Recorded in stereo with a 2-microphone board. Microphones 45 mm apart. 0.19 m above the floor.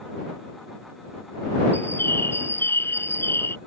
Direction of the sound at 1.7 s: 65° left (ahead or behind).